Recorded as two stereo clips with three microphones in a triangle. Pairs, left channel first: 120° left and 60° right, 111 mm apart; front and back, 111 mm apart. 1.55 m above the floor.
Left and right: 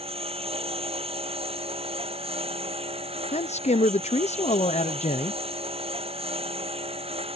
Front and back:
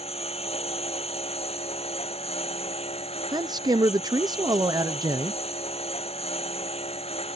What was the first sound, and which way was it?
A lawn mower, 30° right.